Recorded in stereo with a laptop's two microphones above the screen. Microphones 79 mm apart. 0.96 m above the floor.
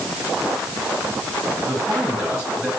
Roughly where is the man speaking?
Centre.